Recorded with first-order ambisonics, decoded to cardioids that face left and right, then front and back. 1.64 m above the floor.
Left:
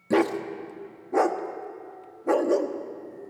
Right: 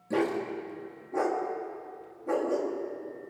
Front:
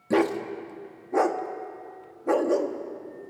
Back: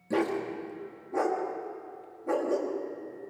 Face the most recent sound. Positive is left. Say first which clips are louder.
# left 5 dB, front 5 dB
turn(degrees=55)